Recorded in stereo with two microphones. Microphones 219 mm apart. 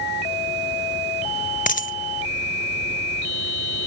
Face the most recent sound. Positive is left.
turn(degrees=35)  # may be behind; listen again after turning